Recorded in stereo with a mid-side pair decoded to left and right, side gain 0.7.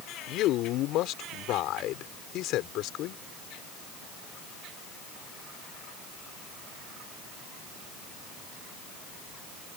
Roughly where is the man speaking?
Ahead left.